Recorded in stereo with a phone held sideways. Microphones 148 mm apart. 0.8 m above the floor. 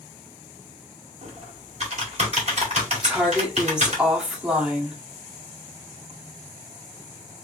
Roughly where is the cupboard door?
No cupboard door in this recording.